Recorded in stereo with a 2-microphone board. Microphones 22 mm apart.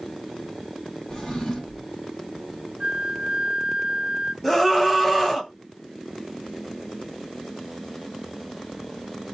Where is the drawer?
30° left (ahead or behind), 1.4 m.